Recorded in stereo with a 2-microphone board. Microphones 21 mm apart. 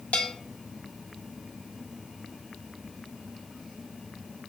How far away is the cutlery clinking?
No cutlery clinking in this recording.